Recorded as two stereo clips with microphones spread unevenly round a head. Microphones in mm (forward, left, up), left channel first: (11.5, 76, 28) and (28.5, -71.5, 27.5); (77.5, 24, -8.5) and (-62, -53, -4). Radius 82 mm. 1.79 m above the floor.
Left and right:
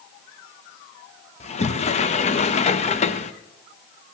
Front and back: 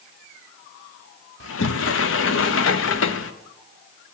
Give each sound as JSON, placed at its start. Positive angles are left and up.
{"t": 1.4, "sound": "a sliding door", "azimuth_deg": 50, "distance_m": 0.9}